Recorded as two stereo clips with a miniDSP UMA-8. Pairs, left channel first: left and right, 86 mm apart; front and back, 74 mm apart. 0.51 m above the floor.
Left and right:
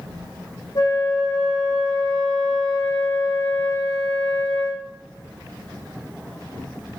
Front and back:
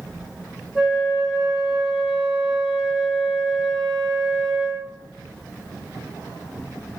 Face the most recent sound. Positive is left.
turn(degrees=90)